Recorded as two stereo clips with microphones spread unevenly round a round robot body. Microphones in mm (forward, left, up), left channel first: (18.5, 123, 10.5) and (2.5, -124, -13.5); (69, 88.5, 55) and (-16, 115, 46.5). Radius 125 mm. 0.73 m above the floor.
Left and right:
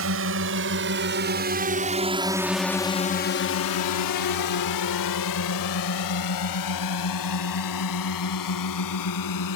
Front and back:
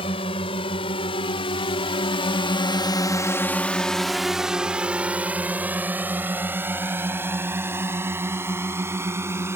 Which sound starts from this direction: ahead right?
A drone, at 0.0 s.